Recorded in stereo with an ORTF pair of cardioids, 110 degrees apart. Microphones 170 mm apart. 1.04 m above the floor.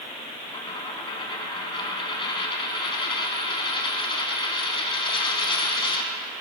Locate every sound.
0.5 s a dropped coin: 30° left, 3 m